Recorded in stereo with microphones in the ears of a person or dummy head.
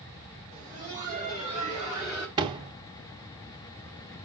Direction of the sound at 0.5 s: 35° right (ahead or behind).